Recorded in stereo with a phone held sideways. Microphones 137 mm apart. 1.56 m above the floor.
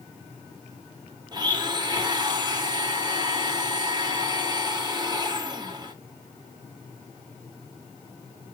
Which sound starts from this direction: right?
A blender, at 1.3 s.